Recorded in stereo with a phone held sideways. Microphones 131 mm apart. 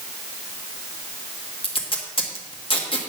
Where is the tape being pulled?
40° left (ahead or behind), 1.6 m.